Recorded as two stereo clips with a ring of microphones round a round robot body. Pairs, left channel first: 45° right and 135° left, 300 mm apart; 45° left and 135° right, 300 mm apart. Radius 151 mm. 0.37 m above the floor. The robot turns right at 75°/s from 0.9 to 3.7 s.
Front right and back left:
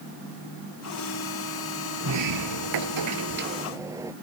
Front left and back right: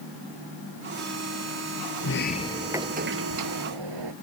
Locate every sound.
2.0 s a sliding door: 90° left; by 4.1 s 145° right